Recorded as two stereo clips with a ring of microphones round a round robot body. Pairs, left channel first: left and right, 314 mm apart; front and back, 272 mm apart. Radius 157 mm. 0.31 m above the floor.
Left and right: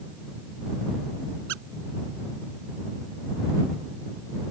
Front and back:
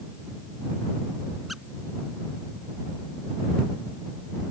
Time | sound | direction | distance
1.5 | a squeak | 90° right | ?